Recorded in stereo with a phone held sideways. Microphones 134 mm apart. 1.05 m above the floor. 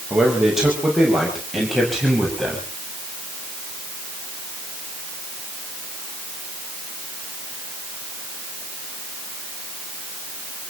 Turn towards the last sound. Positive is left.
turn(degrees=5)  # may be behind; listen again after turning